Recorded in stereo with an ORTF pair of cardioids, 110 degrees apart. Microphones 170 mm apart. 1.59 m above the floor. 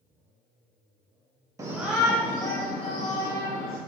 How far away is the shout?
About 0.8 m.